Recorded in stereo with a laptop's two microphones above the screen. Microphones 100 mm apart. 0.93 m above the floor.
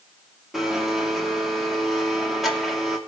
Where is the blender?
Centre (ahead or behind), 2.5 m.